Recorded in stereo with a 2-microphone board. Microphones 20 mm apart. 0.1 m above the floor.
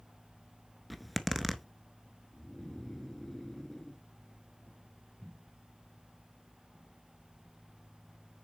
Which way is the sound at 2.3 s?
15° left (ahead or behind).